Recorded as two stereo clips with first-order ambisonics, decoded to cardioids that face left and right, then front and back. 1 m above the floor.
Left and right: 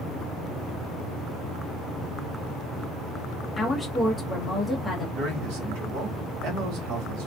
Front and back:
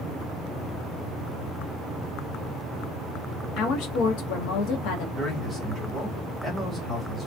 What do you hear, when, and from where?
3.6 s a woman speaking: 10° left, 0.8 m
5.2 s a man speaking: 80° right, 1.4 m